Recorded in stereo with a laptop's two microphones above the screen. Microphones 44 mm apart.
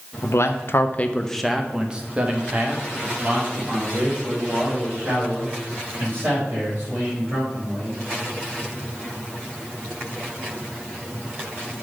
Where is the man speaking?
80° left, 0.8 m; by 8.0 s 45° right (ahead or behind), 5.5 m.